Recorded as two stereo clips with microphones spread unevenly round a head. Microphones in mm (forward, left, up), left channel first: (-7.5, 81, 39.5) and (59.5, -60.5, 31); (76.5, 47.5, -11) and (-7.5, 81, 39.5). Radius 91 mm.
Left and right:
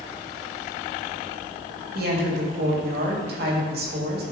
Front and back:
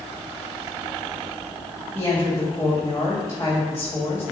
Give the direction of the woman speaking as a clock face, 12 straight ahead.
3 o'clock.